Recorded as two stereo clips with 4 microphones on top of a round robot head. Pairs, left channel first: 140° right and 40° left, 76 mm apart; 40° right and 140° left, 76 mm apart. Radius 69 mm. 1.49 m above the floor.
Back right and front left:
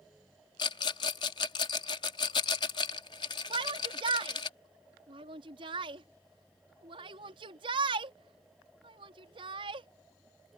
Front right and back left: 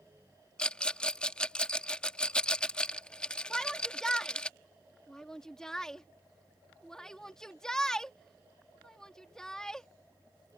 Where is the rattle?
115° right.